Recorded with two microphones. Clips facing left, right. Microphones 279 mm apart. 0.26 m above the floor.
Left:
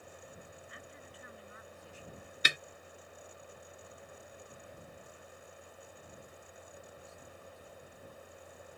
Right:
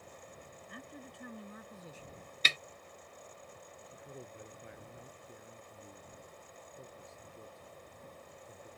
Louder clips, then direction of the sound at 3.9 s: Right 3 dB; 75° right (ahead or behind).